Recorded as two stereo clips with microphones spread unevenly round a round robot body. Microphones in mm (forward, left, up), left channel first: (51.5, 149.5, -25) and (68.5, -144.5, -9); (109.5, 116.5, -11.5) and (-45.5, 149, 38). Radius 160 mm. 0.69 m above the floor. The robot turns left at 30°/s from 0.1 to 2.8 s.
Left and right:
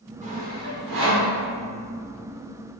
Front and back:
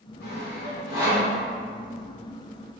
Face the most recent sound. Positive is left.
turn(degrees=-95)